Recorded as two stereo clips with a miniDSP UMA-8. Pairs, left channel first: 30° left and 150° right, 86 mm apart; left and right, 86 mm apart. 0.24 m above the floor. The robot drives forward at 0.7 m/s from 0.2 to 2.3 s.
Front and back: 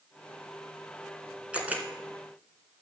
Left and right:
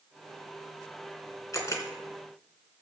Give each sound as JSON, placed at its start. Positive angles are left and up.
{"t": 1.5, "sound": "a camera shutter", "azimuth_deg": 135, "distance_m": 2.5}